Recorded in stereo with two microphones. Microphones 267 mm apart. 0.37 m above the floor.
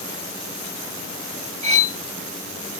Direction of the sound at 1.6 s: 25° right (ahead or behind).